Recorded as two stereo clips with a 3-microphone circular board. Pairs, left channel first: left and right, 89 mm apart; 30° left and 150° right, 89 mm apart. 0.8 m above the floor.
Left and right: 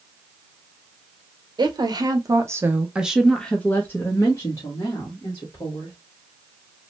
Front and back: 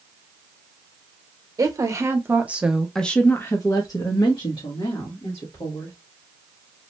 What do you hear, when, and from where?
1.6 s a woman speaking: 110° right, 0.9 m; by 6.0 s 50° left, 1.6 m